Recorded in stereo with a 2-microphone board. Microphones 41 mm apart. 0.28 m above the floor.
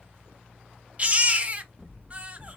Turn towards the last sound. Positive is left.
turn(degrees=-35)  # may be behind; listen again after turning